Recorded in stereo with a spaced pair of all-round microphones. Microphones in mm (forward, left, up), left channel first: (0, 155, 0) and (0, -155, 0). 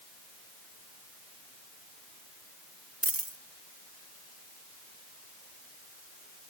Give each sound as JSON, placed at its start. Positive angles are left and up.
{"t": 3.0, "sound": "a dropped coin", "side_deg": -45}